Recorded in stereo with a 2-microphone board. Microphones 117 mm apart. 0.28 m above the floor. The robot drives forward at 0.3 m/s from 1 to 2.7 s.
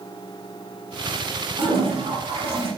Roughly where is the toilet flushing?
Right.